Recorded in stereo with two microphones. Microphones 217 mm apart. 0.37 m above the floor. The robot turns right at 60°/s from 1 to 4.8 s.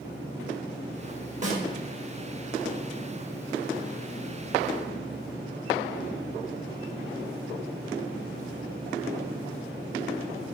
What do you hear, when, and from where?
1.4 s a snare drum: 35° right (ahead or behind), 0.5 m; by 1.6 s 30° right (ahead or behind), 0.5 m